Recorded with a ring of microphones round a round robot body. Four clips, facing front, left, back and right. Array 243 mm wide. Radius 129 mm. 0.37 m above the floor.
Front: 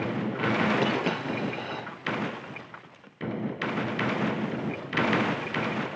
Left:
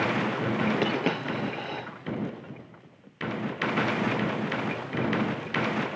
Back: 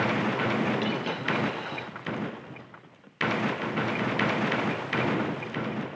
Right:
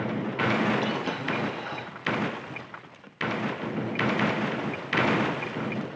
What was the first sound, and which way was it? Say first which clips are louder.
A dropped coin: left 2 dB, front 3 dB; 70° left.